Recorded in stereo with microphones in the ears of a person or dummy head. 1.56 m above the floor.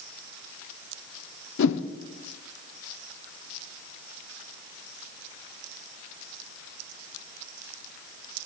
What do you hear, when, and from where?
1.6 s a whoosh: 70° left (ahead or behind), 0.7 m